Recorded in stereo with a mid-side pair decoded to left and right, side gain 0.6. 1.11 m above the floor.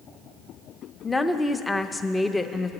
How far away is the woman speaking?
About 0.7 m.